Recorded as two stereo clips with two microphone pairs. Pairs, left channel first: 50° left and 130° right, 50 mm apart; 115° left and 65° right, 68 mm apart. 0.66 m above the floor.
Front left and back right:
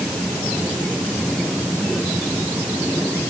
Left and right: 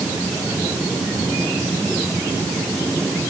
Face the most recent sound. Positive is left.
No sound to turn to.